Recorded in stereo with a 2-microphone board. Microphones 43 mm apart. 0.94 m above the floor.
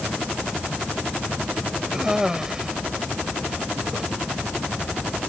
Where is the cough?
15° right (ahead or behind).